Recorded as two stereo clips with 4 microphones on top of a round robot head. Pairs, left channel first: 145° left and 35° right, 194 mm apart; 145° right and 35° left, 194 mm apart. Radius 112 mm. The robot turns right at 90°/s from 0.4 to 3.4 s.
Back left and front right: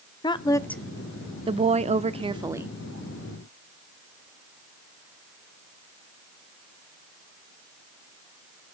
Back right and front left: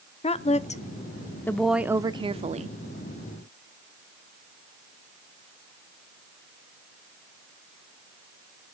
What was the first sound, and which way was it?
A woman speaking, 165° right.